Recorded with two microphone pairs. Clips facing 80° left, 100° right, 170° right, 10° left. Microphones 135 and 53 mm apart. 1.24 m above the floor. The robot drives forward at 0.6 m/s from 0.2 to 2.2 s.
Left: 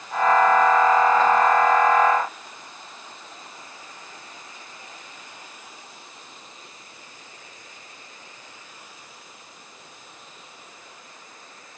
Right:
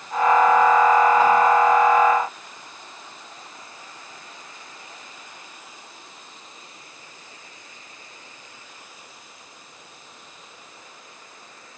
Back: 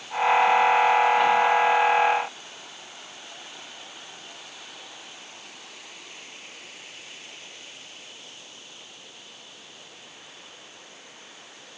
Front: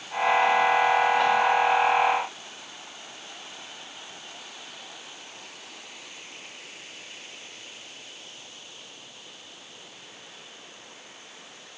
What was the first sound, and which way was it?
Only background noise.